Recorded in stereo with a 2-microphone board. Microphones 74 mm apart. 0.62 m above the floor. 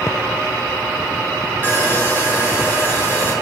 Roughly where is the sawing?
Right.